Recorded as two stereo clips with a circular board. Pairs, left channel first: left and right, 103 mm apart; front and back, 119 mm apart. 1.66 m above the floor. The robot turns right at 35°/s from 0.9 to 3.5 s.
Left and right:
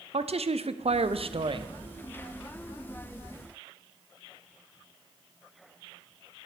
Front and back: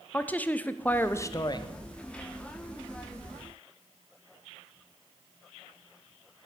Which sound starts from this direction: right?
A woman speaking, at 0.1 s.